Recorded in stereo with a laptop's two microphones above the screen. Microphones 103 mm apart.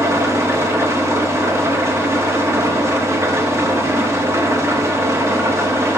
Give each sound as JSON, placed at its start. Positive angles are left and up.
{"t": 0.0, "sound": "an engine running", "side_deg": -25, "distance_m": 0.8}